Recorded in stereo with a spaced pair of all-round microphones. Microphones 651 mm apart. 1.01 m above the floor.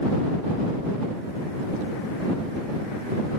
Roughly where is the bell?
No bell in this recording.